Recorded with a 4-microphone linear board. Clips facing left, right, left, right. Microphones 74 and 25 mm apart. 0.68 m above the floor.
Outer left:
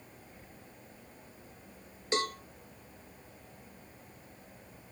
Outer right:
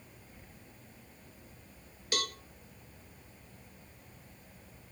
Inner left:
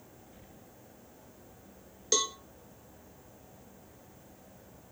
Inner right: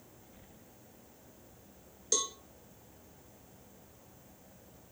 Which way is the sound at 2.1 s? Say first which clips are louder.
Outer left 5 dB, inner left 4 dB; 25° left (ahead or behind).